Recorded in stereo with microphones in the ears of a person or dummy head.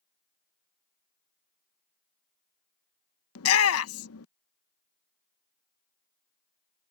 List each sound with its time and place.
3.4 s a shout: 75° left (ahead or behind)